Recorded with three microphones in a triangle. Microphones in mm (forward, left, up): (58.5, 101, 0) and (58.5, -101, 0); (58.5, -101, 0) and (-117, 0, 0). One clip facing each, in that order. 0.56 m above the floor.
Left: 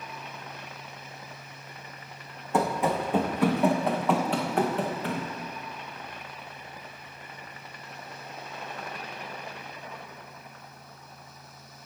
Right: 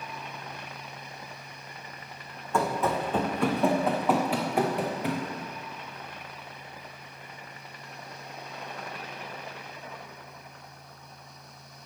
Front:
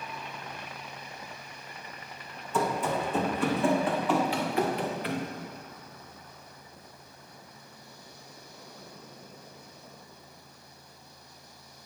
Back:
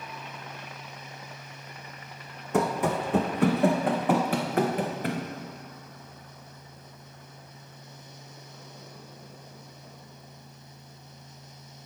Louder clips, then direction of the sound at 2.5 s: Left 1 dB, back 3 dB; 160° left.